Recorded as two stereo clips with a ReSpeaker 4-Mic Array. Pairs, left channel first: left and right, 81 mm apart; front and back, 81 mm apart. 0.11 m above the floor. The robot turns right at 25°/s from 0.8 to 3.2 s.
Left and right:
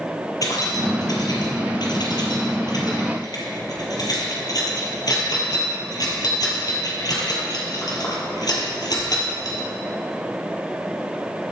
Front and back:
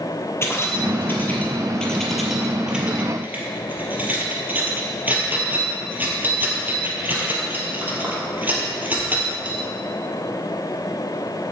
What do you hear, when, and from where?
0.4 s keys jangling: 55° left, 2 m; by 9.7 s 115° left, 2 m